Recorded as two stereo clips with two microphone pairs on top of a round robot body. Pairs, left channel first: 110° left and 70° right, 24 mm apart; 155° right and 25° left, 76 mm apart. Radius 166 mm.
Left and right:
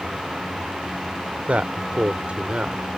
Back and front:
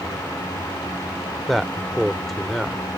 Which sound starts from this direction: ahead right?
A man speaking, at 1.5 s.